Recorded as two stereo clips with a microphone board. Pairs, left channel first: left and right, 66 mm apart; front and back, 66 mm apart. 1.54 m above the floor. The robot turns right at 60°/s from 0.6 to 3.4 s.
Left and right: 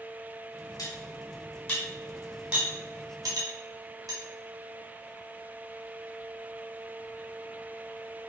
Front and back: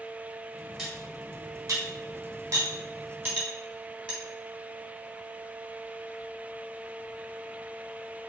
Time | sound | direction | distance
0.8 | cutlery clinking | 90° left | 4 m